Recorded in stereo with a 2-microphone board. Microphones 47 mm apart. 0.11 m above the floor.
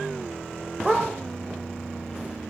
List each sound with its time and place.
0.8 s a dog barking: 5° right (ahead or behind), 2.5 m